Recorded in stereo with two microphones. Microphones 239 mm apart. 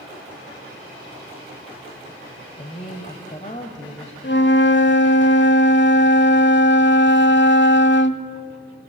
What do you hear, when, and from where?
2.6 s a woman speaking: 30° left (ahead or behind), 1.5 m
4.2 s a flute: 50° left (ahead or behind), 0.8 m